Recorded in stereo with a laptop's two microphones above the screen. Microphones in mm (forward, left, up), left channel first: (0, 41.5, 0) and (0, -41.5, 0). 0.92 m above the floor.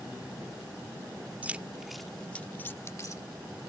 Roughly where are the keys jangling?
Right.